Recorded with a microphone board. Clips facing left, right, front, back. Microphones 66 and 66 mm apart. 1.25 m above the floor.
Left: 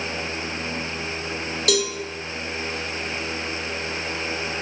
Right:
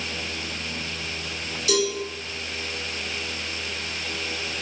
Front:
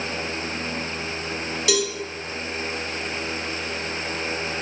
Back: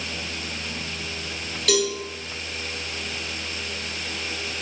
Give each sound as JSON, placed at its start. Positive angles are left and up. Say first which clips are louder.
{"t": 1.7, "sound": "a cowbell", "louder": "even, back 1 dB", "azimuth_deg": 80, "distance_m": 0.6}